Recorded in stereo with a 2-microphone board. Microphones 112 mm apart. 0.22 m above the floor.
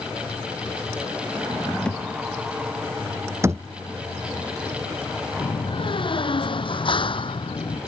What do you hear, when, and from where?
1.9 s a thud: 10° left (ahead or behind)
3.4 s a thud: 25° right (ahead or behind)
5.4 s a door slam: 50° left (ahead or behind)